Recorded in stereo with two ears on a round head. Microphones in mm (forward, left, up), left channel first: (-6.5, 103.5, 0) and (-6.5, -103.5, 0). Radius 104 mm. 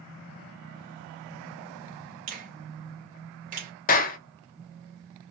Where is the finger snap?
35° right (ahead or behind), 1.0 m.